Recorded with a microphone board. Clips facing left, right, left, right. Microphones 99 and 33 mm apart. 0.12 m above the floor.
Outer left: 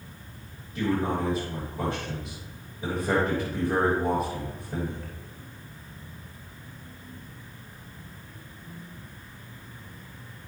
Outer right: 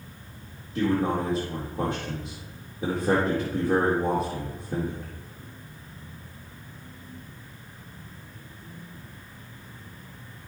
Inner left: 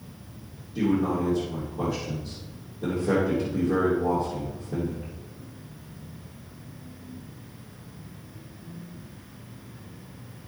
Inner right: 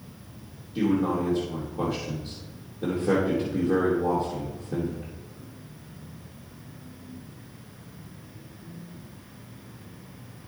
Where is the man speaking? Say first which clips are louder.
Outer right 2 dB, even; 65° right (ahead or behind), 4 m.